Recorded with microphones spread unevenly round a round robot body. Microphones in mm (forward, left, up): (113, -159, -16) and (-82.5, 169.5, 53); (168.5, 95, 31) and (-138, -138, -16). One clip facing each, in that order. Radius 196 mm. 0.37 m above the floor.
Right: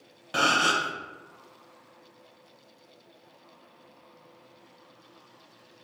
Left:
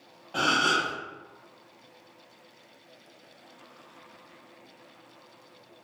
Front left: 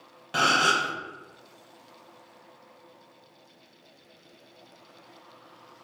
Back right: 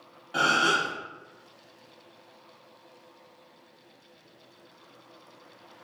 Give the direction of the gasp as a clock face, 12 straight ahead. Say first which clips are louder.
Even, even; 1 o'clock.